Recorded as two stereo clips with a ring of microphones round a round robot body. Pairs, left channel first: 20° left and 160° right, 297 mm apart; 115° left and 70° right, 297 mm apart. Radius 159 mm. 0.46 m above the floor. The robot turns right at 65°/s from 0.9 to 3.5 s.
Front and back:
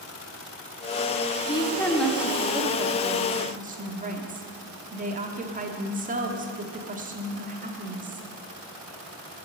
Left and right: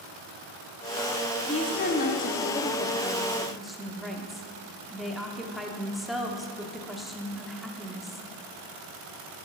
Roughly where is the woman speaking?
Left.